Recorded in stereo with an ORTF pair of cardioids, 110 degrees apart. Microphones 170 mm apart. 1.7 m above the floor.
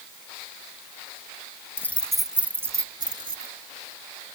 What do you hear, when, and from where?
1.8 s keys jangling: 15° left; by 3.5 s 30° right